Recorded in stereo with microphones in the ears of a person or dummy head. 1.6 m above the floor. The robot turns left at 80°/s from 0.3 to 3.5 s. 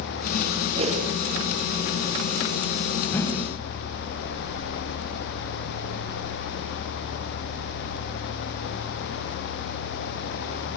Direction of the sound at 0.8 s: 30° right (ahead or behind).